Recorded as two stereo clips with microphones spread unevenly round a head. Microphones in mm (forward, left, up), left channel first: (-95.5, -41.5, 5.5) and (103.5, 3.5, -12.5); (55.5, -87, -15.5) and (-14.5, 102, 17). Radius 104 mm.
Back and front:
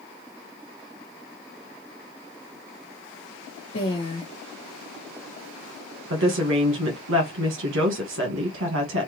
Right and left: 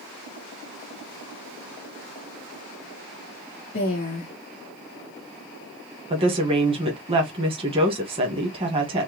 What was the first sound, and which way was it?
A woman speaking, 115° right.